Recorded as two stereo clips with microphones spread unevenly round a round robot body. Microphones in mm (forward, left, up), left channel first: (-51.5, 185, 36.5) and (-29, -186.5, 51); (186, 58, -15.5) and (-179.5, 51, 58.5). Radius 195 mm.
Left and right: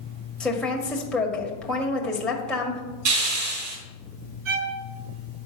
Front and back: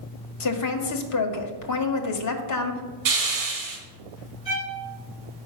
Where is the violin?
70° right, 5.5 m.